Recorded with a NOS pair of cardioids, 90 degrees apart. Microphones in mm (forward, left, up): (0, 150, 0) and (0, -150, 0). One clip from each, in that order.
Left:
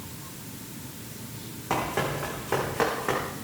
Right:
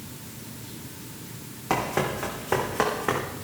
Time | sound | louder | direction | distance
1.7 | running footsteps | right 2 dB | 30° right | 4 m